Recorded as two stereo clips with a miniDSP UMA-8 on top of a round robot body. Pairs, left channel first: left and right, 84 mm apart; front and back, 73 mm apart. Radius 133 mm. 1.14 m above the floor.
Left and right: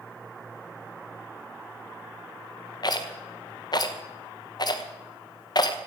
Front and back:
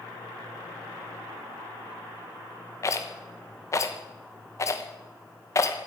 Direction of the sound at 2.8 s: 50° left.